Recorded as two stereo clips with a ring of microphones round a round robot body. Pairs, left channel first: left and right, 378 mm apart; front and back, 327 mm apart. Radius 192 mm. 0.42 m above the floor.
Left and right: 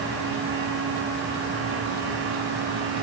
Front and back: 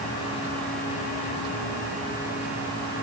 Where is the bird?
I don't hear a bird.